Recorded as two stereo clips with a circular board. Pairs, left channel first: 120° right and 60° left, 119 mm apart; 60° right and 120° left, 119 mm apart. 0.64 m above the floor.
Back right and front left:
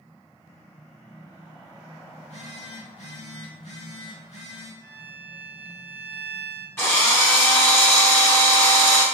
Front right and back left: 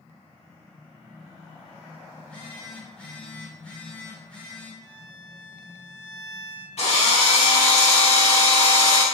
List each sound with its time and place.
2.2 s a phone buzzing: 140° right, 1.1 m
4.8 s a violin: 20° left, 0.9 m
6.8 s a drill: 50° right, 1.2 m